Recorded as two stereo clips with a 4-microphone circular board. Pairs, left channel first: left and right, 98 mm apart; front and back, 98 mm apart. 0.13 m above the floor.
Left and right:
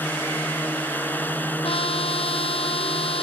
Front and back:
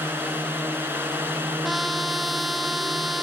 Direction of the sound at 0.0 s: 140° left.